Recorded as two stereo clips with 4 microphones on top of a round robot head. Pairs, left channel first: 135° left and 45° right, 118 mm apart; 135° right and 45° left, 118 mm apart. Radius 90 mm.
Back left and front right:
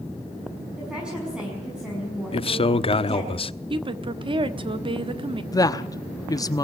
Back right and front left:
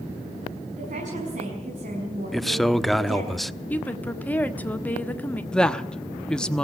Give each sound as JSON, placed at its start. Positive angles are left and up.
{"t": 0.8, "sound": "a woman speaking", "azimuth_deg": 40, "distance_m": 6.0}
{"t": 2.3, "sound": "a man speaking", "azimuth_deg": 135, "distance_m": 1.0}
{"t": 3.7, "sound": "a woman speaking", "azimuth_deg": -65, "distance_m": 1.7}
{"t": 5.5, "sound": "a woman speaking", "azimuth_deg": 145, "distance_m": 1.1}